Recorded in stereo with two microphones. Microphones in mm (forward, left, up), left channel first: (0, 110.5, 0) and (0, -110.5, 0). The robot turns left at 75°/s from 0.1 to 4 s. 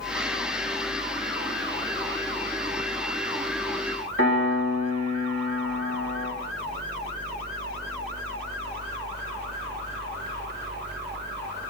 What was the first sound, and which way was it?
A piano, 65° right (ahead or behind).